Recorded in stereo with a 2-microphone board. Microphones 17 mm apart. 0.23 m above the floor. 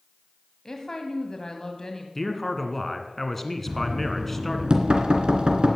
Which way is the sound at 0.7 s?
35° left (ahead or behind).